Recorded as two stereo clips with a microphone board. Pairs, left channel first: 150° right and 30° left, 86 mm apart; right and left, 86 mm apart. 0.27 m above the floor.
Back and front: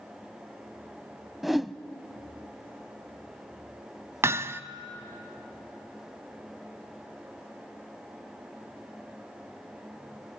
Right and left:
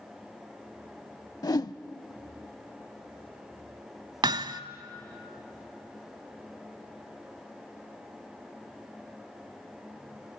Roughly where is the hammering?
Left.